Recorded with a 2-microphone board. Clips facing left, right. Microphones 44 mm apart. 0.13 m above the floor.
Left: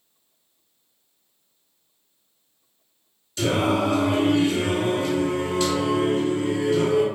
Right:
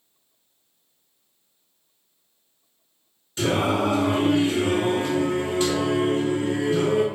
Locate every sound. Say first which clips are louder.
3.4 s singing: left 1 dB; 30° right (ahead or behind), 1.3 m